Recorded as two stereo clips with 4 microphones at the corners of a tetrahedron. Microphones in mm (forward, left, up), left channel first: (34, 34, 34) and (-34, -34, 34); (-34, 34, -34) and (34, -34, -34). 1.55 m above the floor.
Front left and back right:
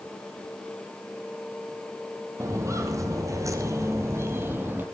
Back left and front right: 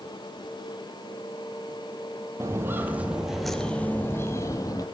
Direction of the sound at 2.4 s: 95° right.